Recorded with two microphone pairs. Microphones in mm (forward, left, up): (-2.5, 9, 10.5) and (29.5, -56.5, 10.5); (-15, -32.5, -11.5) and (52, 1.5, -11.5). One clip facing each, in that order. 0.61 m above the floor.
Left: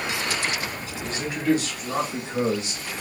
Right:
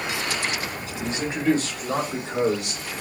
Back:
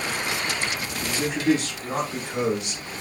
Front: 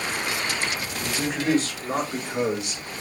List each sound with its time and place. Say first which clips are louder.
1.0 s a man speaking: right 3 dB, back 1 dB; straight ahead, 1.6 m; by 2.8 s 60° right, 1.7 m